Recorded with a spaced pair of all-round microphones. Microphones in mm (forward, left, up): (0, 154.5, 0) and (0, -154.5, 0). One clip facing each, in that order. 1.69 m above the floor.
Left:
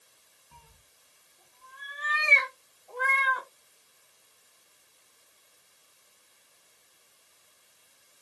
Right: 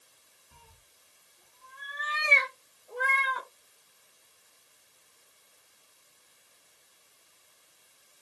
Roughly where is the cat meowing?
Right.